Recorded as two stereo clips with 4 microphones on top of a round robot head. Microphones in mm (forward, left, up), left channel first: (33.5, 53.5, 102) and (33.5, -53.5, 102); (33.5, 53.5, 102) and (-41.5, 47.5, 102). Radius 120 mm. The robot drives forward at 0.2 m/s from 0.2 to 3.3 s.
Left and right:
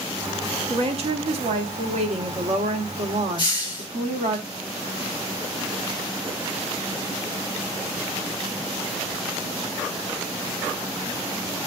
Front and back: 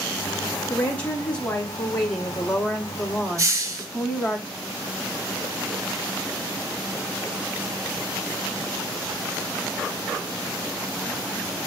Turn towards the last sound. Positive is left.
turn(degrees=145)